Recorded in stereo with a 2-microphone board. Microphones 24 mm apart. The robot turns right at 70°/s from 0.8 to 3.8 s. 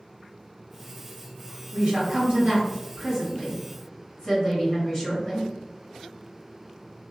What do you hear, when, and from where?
1.7 s a woman speaking: 105° right, 1.9 m; by 5.5 s 40° left, 1.9 m